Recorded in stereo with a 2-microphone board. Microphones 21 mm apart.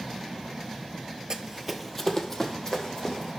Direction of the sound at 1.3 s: 40° right (ahead or behind).